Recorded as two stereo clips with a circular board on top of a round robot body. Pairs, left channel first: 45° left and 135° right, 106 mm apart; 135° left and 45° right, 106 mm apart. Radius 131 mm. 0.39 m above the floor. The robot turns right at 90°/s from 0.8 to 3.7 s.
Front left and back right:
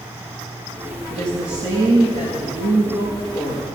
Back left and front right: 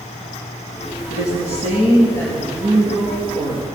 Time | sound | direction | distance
1.1 | a woman speaking | 115° left | 5.5 m